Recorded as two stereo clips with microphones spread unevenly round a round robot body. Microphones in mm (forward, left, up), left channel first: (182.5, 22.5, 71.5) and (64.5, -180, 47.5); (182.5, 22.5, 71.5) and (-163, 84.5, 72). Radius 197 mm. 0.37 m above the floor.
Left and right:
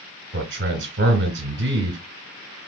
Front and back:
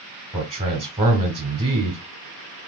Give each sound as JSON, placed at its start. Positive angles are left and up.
{"t": 0.3, "sound": "a man speaking", "azimuth_deg": -110, "distance_m": 2.0}